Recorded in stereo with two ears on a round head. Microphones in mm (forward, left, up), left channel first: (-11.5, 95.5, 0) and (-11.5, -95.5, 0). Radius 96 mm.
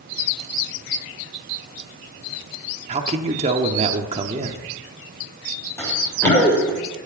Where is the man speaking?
30° right (ahead or behind), 0.9 m.